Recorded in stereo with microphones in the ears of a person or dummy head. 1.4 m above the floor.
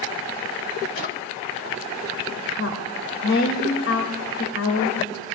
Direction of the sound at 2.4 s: 65° left (ahead or behind).